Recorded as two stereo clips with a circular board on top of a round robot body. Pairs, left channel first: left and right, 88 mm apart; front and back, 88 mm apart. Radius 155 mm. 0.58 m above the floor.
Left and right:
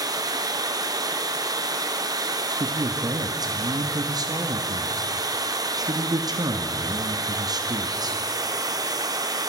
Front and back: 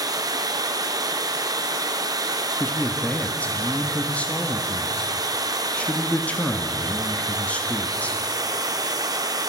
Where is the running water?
135° right, 1.5 m.